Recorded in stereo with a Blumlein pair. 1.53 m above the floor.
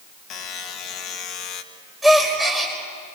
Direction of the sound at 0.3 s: 30° left.